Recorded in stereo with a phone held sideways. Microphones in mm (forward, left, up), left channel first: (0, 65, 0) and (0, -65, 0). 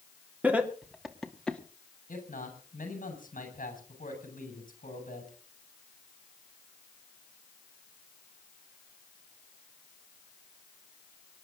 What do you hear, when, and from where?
0.4 s laughter: 10° right (ahead or behind), 3 m; by 1.6 s 10° left (ahead or behind), 2 m
2.1 s a man speaking: 75° left (ahead or behind), 6.5 m